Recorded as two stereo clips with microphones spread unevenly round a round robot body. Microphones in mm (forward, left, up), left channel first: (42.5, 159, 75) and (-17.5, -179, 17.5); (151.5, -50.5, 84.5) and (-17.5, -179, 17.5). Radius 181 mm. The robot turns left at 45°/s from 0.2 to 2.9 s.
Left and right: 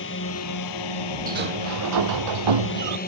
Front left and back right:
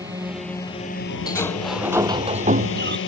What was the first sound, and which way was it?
A drone, 135° left.